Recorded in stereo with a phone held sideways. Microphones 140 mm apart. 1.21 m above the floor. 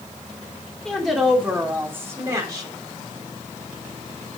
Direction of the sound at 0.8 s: 5° left (ahead or behind).